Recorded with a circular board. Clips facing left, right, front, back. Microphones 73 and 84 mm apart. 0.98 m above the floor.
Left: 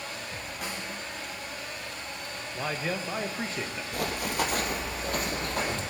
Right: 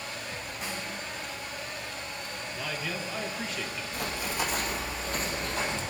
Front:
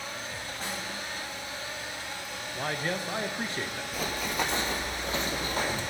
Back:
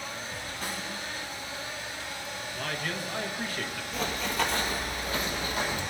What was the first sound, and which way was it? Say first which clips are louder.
A snare drum: even, even; 55° left.